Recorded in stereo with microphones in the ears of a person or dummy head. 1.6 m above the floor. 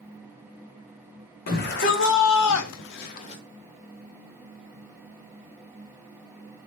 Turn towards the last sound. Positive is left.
turn(degrees=25)  # may be behind; listen again after turning